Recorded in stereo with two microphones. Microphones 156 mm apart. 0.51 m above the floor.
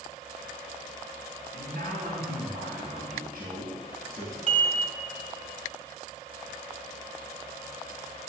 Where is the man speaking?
75° right (ahead or behind), 2.5 m.